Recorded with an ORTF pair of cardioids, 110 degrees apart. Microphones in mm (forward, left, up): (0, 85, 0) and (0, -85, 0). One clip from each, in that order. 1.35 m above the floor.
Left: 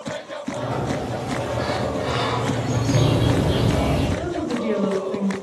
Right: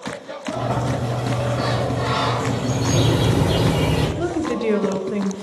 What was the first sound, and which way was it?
A sliding door, 65° right.